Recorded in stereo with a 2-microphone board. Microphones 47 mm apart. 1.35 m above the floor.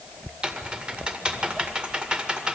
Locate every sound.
0.4 s typing on a keyboard: 20° right (ahead or behind), 1.9 m